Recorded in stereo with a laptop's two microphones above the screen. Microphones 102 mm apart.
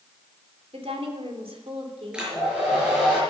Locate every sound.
0.7 s a woman speaking: 75° right (ahead or behind), 3 m
2.1 s a hair dryer: 10° right (ahead or behind), 5.5 m